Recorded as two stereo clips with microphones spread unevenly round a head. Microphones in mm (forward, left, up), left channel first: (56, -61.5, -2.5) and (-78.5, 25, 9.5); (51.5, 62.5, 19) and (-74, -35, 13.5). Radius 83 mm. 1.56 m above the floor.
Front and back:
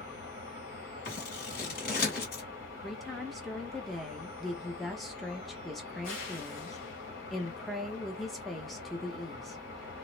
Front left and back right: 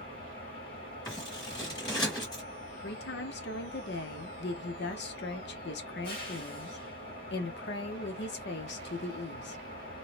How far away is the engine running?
About 1.5 m.